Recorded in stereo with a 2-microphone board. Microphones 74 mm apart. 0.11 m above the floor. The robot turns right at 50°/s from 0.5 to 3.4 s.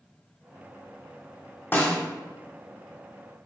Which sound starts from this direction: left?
A snare drum, at 1.7 s.